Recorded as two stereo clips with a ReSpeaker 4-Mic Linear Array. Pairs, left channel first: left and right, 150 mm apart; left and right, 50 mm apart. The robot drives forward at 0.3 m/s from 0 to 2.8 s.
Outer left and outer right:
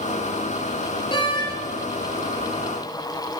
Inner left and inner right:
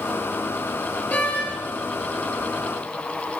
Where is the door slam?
35° left (ahead or behind), 2 m.